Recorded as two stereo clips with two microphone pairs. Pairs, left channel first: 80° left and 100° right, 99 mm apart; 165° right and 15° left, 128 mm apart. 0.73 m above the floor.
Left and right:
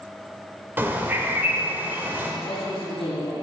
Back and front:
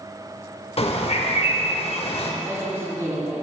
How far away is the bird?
About 0.5 m.